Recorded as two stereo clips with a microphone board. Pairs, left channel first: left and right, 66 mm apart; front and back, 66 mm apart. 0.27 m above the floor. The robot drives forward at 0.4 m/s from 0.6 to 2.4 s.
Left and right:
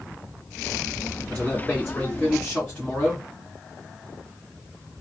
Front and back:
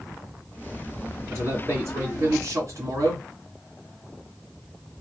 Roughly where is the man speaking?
Behind left.